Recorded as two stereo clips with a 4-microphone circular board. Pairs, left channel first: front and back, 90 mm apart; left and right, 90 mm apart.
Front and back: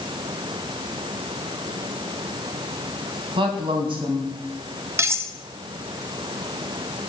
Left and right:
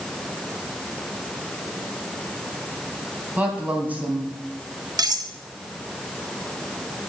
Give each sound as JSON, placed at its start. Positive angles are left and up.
{"t": 3.4, "sound": "a woman speaking", "azimuth_deg": -160, "distance_m": 3.0}
{"t": 5.0, "sound": "cutlery clinking", "azimuth_deg": -125, "distance_m": 0.8}